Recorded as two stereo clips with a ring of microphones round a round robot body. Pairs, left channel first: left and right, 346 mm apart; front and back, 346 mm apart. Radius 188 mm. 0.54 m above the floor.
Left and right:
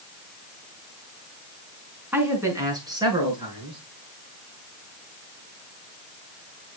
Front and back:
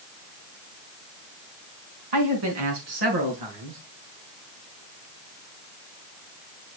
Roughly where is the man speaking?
Behind.